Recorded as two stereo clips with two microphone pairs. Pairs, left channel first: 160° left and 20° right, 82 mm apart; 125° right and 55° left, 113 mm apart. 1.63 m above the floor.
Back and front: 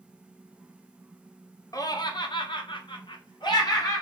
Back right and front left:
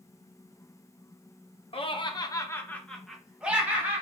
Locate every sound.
1.7 s laughter: 160° right, 0.7 m; by 4.0 s 125° left, 1.2 m